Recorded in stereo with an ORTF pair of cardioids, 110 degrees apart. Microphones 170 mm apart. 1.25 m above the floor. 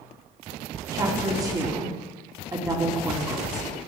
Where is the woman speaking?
20° right, 2.5 m.